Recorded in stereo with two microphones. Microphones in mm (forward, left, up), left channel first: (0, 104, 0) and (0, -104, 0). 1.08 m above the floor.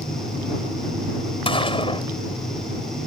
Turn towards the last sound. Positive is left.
turn(degrees=25)  # may be behind; listen again after turning